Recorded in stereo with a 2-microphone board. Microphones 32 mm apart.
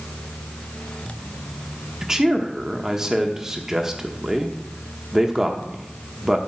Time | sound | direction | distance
2.0 | a man speaking | 15° right (ahead or behind) | 0.9 m